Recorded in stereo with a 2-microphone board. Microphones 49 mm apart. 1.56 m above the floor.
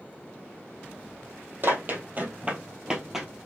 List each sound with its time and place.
1.6 s running footsteps: 45° right (ahead or behind), 2.5 m; by 3.3 s 5° right (ahead or behind), 1.9 m